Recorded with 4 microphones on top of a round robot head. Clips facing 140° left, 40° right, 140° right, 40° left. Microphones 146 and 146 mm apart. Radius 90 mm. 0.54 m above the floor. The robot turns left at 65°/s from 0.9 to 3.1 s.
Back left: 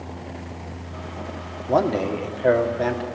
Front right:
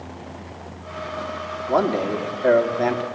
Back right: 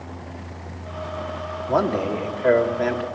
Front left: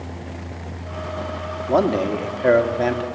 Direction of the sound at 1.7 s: 95° left.